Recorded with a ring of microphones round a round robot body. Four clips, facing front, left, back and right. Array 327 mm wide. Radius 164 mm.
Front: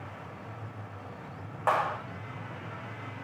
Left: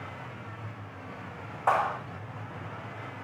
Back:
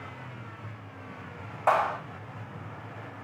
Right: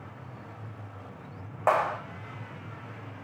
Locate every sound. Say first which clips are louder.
1.7 s a clap: right 1 dB, back 3 dB; 80° right, 4 m